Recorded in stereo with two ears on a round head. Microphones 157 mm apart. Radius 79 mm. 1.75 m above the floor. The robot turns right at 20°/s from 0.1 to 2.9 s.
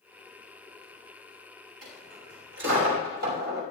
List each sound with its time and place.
1.8 s a dropped coin: 80° right, 5 m; by 3.6 s 65° right (ahead or behind), 5 m